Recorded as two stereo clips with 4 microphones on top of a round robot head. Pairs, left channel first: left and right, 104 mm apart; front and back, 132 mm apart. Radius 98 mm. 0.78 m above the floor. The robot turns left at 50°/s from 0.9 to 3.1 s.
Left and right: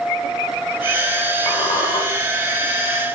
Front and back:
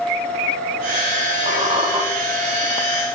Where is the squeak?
140° left, 4.5 m; by 2.0 s 115° left, 4.5 m.